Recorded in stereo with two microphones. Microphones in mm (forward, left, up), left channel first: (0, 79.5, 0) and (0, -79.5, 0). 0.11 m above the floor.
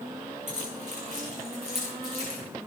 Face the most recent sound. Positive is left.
turn(degrees=-40)  # may be behind; listen again after turning